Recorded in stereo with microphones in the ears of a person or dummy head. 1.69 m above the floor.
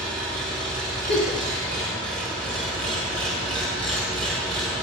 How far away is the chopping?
I don't hear chopping.